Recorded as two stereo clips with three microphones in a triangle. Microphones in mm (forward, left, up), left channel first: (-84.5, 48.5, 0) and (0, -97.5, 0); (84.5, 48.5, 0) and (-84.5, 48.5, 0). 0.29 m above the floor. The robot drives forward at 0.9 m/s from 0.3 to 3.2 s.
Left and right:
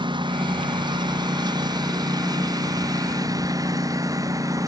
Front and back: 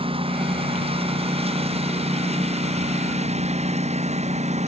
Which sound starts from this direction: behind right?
A lawn mower, at 0.0 s.